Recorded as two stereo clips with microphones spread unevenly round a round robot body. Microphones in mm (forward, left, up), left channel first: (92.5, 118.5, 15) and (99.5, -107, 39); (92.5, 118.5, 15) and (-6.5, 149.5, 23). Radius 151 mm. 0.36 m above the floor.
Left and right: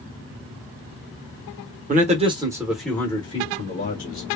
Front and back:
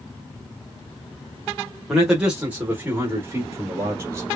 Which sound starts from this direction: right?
A man speaking, at 1.9 s.